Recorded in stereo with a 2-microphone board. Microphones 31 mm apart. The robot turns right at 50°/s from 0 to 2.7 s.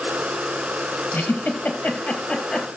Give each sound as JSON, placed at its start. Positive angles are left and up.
{"t": 1.1, "sound": "a giggle", "side_deg": 75, "distance_m": 3.0}